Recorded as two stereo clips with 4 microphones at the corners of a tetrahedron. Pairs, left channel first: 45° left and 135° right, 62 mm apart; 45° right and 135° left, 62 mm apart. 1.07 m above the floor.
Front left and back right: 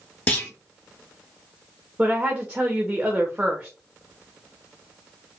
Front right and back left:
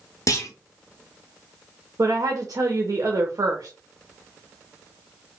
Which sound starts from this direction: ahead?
A clunk, at 0.3 s.